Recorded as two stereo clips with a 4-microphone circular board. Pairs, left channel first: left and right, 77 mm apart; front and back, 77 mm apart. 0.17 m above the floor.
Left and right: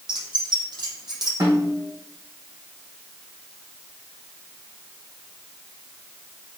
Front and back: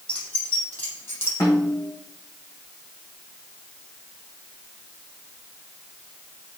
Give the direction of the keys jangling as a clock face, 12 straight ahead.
2 o'clock.